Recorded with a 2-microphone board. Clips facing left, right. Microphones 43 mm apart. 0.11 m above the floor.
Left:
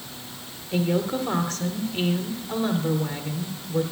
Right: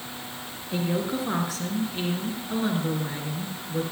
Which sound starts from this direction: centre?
A woman speaking, at 0.7 s.